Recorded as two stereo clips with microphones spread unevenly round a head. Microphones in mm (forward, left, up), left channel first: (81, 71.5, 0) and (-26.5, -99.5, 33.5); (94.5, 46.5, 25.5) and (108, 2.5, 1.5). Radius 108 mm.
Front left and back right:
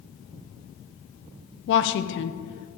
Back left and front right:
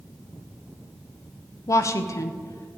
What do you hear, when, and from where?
1.7 s a woman speaking: 100° left, 0.7 m